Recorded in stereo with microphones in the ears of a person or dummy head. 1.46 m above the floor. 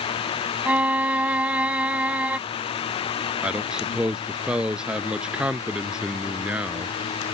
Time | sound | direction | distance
0.7 | a violin | 10° right (ahead or behind) | ?
3.4 | a man speaking | 5° right (ahead or behind) | ?